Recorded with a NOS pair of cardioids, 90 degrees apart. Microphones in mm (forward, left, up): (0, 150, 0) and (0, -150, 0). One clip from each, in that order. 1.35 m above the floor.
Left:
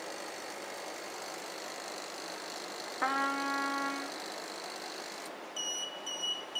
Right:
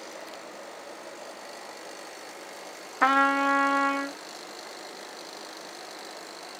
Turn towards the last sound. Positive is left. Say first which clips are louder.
# right 10 dB
turn(degrees=-50)